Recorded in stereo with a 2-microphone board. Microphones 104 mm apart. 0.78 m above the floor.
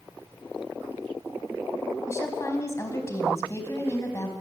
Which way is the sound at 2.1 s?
25° left (ahead or behind).